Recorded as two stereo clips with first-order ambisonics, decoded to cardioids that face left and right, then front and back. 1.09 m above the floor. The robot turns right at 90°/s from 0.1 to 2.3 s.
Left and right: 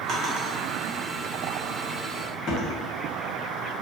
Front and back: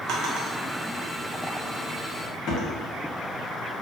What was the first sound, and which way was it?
A drawer, 150° right.